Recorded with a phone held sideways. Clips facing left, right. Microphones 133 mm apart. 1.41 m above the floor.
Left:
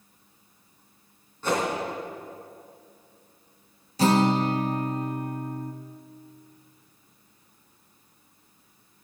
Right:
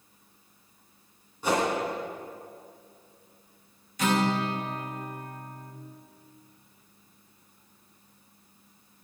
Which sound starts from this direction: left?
A guitar, at 4.0 s.